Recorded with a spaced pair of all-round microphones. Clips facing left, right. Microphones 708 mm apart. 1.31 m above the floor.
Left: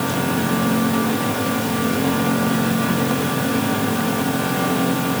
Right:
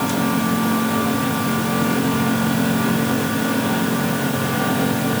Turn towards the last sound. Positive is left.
No sound to turn to.